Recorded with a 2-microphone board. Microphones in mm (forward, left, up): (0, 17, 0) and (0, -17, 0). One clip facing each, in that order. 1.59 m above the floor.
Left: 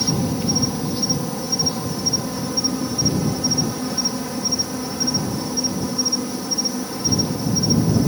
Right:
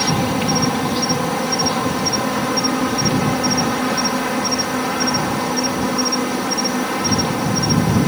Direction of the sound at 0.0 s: 75° right (ahead or behind).